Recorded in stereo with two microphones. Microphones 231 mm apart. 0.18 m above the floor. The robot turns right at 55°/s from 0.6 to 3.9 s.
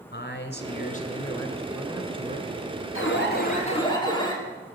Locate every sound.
0.1 s a man speaking: 120° left, 2.5 m; by 2.5 s 130° right, 2.5 m
3.0 s an alarm: 110° left, 3.5 m; by 4.4 s 160° left, 3.5 m